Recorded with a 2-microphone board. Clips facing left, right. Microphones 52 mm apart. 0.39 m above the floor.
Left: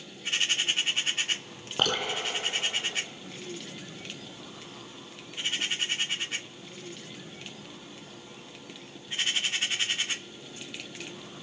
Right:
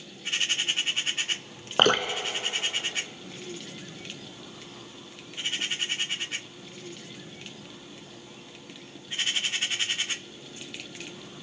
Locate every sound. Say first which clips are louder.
1.8 s dripping: right 6 dB; 55° right (ahead or behind), 0.8 m